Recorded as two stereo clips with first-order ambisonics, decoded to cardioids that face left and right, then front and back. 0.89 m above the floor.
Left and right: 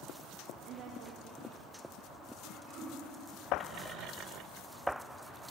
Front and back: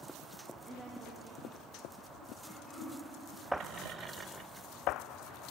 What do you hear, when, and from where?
0.7 s a woman speaking: 105° right, 0.7 m
2.4 s throat clearing: 85° right, 2 m